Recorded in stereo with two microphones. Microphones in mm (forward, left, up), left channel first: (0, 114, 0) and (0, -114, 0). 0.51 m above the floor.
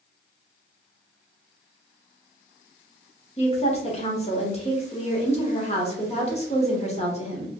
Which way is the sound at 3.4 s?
30° left (ahead or behind).